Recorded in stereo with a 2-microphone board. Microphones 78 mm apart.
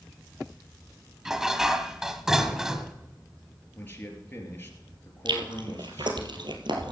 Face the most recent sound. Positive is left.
turn(degrees=-80)